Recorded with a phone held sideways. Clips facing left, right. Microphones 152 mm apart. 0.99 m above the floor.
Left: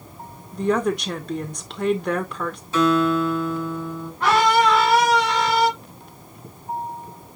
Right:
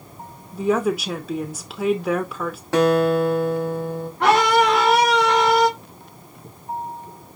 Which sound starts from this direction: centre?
A woman speaking, at 0.5 s.